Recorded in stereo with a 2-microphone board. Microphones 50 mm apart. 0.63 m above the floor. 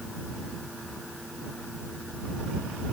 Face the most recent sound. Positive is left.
No sound to turn to.